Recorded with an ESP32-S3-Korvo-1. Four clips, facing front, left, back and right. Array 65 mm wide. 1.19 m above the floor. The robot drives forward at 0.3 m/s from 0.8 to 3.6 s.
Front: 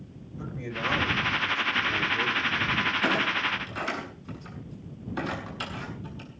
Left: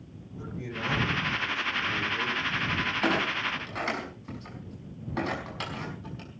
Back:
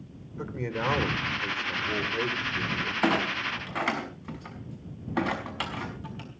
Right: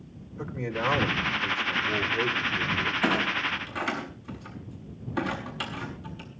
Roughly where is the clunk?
Behind.